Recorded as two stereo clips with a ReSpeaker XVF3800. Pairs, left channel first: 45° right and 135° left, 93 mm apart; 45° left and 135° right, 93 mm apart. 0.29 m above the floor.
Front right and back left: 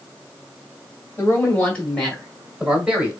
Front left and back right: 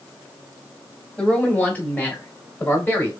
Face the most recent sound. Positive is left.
turn(degrees=85)